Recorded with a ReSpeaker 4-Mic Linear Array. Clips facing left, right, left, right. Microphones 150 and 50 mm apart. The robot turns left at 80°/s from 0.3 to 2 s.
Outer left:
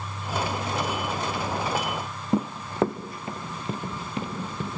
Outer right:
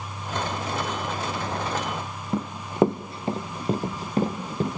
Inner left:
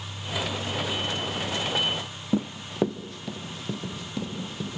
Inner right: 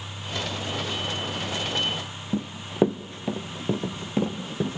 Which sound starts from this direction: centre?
Running footsteps, at 2.3 s.